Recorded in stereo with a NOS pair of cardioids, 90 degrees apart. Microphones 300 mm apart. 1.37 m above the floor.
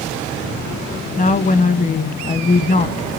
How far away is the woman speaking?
About 1.1 m.